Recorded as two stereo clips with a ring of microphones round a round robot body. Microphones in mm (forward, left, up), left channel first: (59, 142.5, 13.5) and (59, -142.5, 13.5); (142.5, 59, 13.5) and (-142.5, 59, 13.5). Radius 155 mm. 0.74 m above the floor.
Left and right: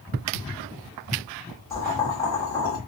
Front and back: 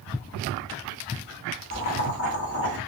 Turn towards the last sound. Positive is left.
turn(degrees=15)